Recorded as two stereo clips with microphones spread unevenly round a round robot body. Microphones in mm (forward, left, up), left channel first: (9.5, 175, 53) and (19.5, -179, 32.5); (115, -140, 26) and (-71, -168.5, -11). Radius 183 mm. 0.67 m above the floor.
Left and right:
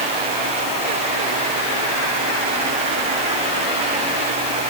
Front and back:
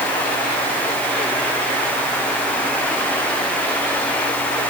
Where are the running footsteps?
I don't hear running footsteps.